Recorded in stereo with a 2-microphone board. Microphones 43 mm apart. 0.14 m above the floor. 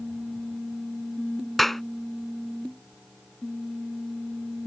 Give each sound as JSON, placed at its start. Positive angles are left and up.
{"t": 1.6, "sound": "a clap", "side_deg": 5}